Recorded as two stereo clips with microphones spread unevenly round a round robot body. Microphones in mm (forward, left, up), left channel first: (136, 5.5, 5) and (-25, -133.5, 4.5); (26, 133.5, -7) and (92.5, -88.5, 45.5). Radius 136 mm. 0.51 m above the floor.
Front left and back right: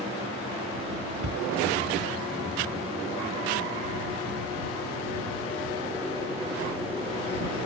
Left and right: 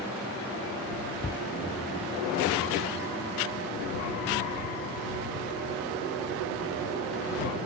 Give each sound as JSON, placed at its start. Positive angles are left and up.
{"t": 1.2, "sound": "a cupboard door", "azimuth_deg": -170}